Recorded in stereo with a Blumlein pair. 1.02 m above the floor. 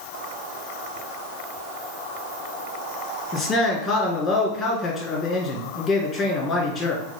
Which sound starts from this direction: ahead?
A man speaking, at 3.3 s.